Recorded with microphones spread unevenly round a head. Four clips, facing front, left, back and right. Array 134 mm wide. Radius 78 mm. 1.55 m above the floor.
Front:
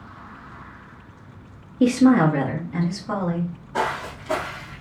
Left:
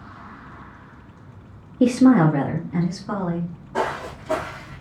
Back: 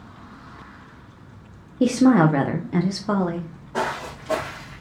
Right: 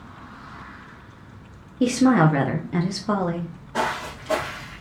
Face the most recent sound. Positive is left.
turn(degrees=155)